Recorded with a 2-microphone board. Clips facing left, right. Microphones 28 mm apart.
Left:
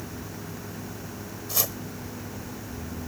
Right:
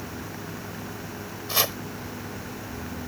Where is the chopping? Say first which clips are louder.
Right 6 dB; 50° right (ahead or behind).